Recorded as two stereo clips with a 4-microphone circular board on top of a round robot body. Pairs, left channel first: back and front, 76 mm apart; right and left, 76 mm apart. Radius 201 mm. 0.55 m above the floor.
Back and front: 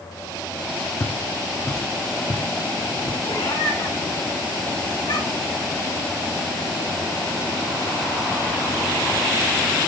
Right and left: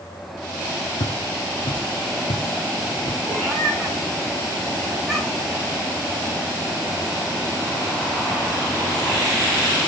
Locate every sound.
1.0 s footsteps: 115° right, 1.2 m; by 3.1 s 65° right, 1.5 m
3.2 s a cat meowing: 175° left, 6 m